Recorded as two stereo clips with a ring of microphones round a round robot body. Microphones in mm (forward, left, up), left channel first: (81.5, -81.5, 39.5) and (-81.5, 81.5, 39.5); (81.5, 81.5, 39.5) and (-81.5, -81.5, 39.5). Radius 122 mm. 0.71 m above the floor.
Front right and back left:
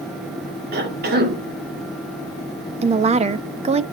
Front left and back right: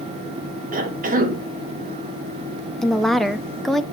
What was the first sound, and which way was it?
A cough, 175° left.